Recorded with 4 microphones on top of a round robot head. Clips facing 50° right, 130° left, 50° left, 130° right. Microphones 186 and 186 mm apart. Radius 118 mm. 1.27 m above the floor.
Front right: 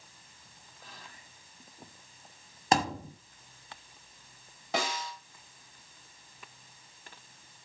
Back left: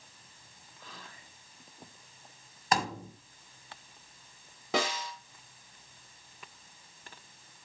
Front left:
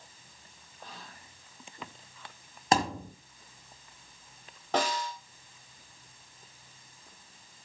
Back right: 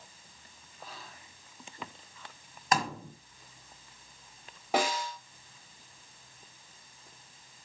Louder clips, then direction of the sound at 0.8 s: Back left 2 dB, even; 140° left.